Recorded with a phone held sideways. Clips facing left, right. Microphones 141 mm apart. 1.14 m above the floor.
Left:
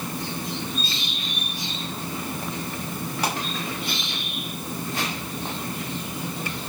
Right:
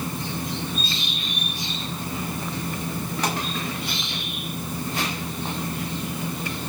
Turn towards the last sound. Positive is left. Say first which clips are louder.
# even
turn(degrees=10)  # may be behind; listen again after turning